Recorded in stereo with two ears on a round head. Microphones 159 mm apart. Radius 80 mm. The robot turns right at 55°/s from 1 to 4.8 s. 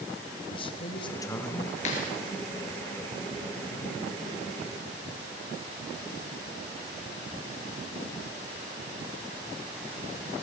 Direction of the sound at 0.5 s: 140° left.